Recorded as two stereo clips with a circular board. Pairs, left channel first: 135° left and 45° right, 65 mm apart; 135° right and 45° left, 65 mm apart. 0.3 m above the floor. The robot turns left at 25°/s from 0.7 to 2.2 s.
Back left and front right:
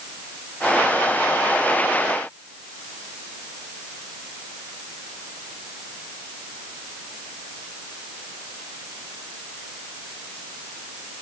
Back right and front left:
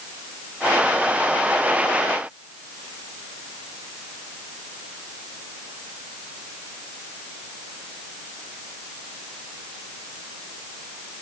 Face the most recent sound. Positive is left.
No sound to turn to.